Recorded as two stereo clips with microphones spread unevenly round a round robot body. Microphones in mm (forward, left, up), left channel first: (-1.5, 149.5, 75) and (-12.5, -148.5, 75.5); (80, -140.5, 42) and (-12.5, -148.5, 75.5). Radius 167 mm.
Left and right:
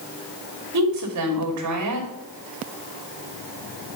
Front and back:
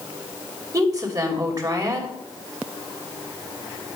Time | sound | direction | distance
0.7 | a woman speaking | 115° right | 3 m